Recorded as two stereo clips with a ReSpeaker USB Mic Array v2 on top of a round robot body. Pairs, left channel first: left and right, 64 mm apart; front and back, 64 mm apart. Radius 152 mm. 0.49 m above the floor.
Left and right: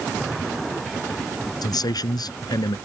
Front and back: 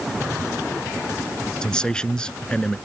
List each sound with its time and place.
1.6 s a man speaking: 75° left